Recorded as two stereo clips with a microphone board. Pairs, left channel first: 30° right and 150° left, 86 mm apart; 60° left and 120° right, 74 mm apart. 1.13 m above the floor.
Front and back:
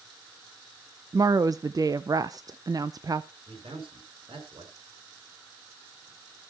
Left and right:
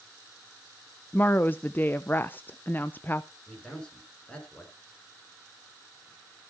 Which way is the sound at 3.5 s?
135° left.